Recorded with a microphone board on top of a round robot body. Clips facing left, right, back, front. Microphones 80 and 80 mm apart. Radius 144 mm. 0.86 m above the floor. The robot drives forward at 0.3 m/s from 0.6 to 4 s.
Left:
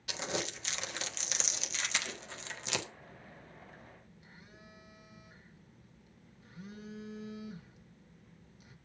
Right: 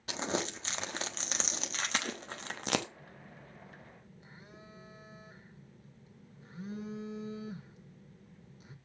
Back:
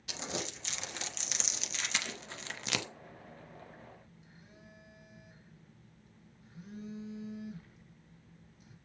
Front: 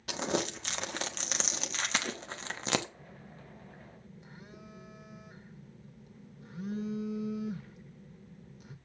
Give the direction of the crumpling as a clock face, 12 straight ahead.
1 o'clock.